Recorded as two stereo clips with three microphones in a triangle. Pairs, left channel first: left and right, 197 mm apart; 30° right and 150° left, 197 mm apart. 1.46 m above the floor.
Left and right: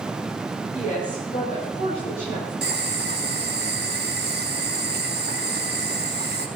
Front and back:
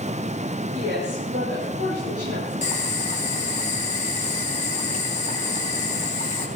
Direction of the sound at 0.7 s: 135° left.